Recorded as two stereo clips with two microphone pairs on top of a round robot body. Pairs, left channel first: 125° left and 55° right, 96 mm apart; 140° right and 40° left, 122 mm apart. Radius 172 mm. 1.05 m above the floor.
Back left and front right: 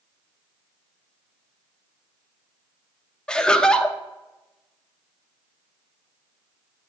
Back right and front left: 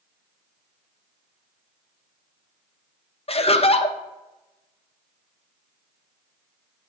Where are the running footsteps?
I don't hear running footsteps.